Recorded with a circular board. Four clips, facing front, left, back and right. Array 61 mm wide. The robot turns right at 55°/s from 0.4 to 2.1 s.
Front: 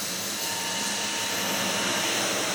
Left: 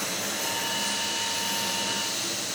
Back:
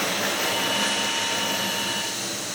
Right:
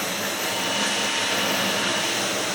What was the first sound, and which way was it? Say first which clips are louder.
Running water: right 5 dB, back 9 dB; 155° right.